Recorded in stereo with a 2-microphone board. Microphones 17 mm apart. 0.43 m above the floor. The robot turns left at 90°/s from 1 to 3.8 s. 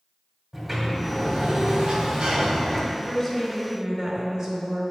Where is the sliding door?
10° right, 1.5 m; by 2.8 s 175° right, 1.5 m.